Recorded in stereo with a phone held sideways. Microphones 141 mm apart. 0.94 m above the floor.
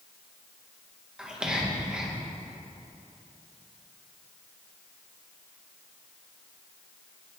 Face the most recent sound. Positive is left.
turn(degrees=-5)  # may be behind; listen again after turning